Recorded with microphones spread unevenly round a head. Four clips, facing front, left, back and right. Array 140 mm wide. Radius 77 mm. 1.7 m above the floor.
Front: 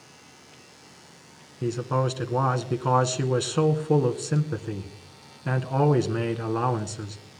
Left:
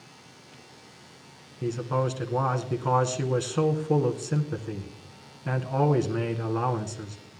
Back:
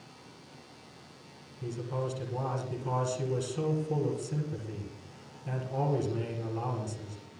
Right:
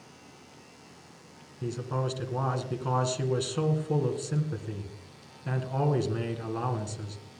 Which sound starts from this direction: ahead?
A man speaking, at 1.6 s.